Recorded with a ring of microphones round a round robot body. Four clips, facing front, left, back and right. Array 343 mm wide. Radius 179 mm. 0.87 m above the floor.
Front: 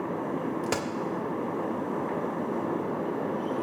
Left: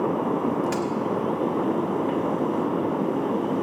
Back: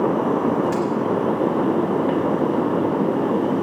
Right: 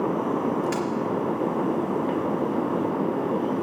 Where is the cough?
No cough in this recording.